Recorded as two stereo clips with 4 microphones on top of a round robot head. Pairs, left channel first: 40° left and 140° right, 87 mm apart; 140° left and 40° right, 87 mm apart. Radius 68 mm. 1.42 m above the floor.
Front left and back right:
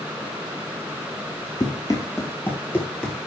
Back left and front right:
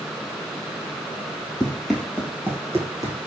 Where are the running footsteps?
60° left, 1.5 m; by 3.3 s 45° right, 1.5 m.